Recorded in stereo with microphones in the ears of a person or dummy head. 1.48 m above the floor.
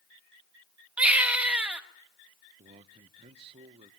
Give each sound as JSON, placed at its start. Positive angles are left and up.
{"t": 1.0, "sound": "a baby crying", "side_deg": -10, "distance_m": 1.6}
{"t": 2.6, "sound": "a man speaking", "side_deg": -40, "distance_m": 0.9}